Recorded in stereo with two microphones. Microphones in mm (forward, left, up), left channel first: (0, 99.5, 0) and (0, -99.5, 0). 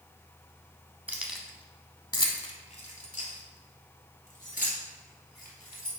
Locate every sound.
1.1 s keys jangling: 10° right (ahead or behind), 0.7 m; by 5.9 s 45° left (ahead or behind), 2.5 m